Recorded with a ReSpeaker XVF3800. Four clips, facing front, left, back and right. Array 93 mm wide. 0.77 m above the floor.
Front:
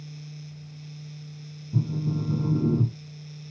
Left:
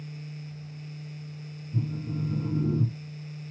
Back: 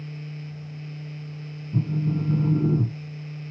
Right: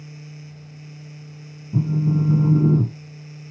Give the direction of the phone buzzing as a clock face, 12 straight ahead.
3 o'clock.